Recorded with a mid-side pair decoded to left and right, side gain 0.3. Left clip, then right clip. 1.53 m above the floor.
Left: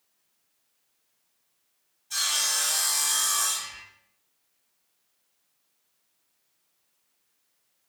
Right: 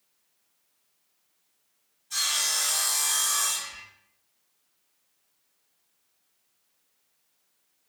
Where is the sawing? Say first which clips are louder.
Even; 50° left, 1.6 m.